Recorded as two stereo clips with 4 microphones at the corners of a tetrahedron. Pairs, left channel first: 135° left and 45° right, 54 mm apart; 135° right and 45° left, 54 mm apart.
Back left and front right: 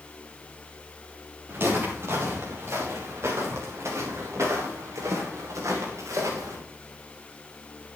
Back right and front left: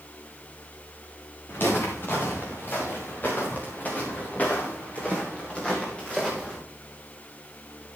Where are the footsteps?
85° right, 7 m; by 6.6 s 60° right, 6 m.